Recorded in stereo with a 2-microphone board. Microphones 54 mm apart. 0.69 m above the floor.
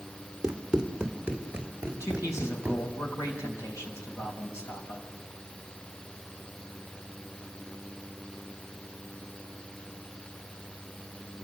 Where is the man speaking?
75° left (ahead or behind), 5 m.